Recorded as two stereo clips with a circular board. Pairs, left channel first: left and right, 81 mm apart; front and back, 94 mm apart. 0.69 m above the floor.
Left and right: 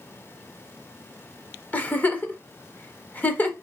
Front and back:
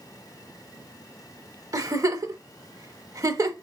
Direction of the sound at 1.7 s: 150° left.